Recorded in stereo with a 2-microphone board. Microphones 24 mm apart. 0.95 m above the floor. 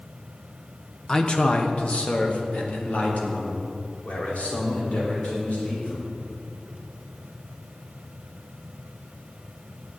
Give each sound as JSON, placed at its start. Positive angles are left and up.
{"t": 1.1, "sound": "a man speaking", "side_deg": 30, "distance_m": 0.9}